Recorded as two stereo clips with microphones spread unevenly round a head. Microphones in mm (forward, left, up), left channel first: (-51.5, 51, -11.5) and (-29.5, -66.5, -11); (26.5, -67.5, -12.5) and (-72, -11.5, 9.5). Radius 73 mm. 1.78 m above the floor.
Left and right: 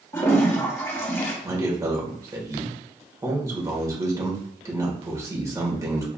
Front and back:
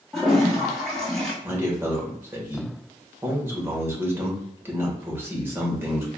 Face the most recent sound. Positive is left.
turn(degrees=-140)